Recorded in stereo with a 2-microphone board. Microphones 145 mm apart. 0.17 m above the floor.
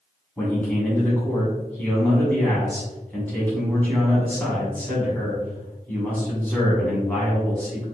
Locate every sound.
0.4 s a man speaking: 10° left (ahead or behind), 1.3 m